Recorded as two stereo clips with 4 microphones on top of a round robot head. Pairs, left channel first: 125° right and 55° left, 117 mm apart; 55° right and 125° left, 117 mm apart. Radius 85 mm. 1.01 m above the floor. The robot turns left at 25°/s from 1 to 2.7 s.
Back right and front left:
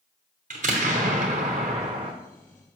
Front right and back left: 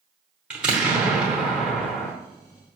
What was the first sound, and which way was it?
An explosion, 45° left.